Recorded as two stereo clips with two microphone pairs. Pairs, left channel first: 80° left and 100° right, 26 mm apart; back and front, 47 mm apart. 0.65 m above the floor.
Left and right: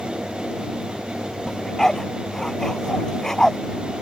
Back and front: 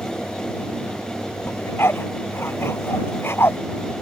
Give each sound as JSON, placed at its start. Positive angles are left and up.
{"t": 1.5, "sound": "a dog barking", "azimuth_deg": 150}